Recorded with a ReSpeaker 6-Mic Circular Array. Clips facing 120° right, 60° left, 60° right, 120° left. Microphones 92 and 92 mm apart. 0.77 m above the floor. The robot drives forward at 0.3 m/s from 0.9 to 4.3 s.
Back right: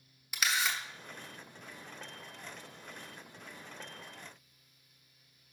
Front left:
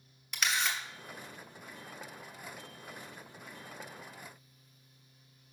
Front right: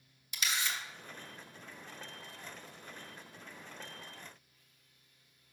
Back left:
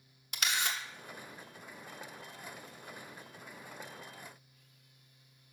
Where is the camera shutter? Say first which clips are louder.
Even, back left 2 dB; 155° left, 0.9 m.